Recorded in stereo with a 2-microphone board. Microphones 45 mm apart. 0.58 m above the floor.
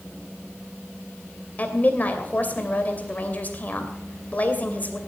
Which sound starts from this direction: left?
A woman speaking, at 1.6 s.